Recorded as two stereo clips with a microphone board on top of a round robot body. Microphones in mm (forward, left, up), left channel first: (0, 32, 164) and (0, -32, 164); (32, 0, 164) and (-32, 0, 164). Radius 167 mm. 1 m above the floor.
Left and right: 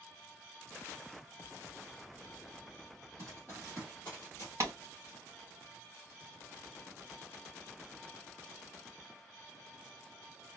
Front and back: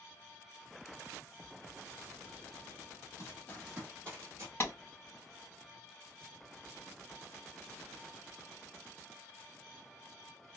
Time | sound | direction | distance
3.2 | running footsteps | 45° right | 1.0 m
4.6 | a clap | 50° right | 2.5 m